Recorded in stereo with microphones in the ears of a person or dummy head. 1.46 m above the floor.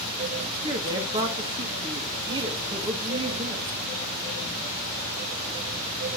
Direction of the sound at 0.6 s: 25° right (ahead or behind).